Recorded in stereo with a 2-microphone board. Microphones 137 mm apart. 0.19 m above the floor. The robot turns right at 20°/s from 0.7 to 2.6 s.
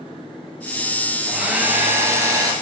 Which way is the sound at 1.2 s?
5° right (ahead or behind).